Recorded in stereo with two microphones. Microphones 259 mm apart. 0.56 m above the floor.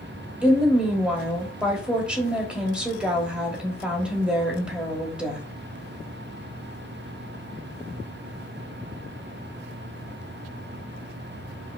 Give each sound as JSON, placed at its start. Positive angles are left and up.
{"t": 0.4, "sound": "a woman speaking", "side_deg": -5, "distance_m": 1.2}